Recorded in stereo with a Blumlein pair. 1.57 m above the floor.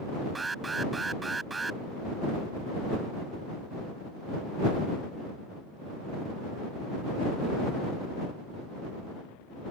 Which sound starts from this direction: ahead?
An alarm, at 0.3 s.